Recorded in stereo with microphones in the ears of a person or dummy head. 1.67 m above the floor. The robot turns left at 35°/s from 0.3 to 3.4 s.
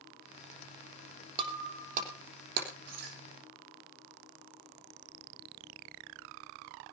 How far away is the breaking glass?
About 3.5 m.